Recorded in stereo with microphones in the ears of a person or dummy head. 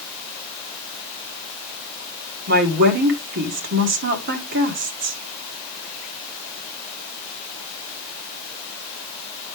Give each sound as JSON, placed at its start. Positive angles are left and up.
{"t": 2.5, "sound": "a woman speaking", "side_deg": -55, "distance_m": 1.7}